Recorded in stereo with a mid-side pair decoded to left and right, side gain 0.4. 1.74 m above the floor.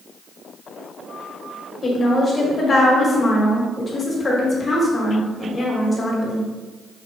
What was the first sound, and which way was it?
A woman speaking, 40° left.